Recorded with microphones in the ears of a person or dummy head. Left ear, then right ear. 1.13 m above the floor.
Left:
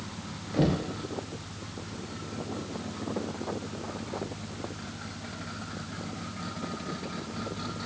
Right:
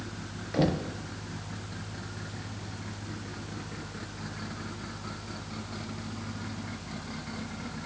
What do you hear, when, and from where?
0.5 s knocking: 20° right (ahead or behind), 1.1 m